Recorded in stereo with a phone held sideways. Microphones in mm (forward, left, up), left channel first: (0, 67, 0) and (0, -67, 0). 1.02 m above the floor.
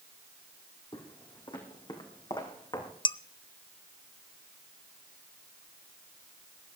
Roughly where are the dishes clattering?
Left.